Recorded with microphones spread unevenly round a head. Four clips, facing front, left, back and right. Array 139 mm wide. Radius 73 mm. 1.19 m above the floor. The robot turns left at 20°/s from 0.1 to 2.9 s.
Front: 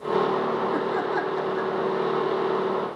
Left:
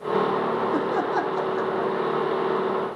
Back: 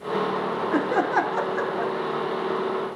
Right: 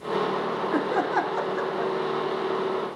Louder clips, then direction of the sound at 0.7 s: Left 1 dB, back 3 dB; 170° right.